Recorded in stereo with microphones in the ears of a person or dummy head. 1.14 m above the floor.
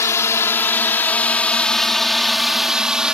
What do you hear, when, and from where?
0.0 s a drone: 20° left (ahead or behind); by 3.1 s centre (ahead or behind)